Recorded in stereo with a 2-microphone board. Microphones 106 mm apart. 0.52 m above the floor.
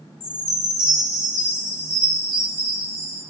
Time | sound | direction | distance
0.2 | a chime | 80° left | 4 m